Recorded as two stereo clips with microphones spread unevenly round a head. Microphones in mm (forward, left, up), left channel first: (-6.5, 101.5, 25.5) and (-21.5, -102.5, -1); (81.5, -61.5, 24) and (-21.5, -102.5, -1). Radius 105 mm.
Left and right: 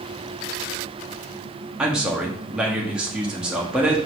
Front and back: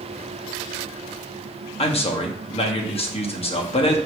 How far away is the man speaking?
About 1.9 m.